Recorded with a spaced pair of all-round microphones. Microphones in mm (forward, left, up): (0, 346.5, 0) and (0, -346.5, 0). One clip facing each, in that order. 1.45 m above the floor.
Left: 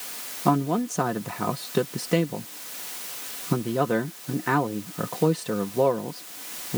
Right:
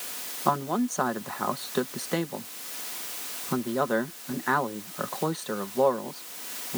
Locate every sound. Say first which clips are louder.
0.5 s a man speaking: left 4 dB; 55° left (ahead or behind)